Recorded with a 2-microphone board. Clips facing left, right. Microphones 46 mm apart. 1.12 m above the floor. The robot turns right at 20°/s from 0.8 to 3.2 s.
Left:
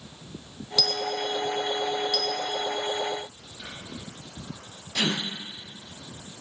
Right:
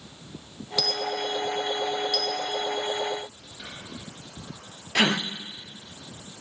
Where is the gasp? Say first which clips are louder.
Right 5 dB; 70° right (ahead or behind), 0.5 m.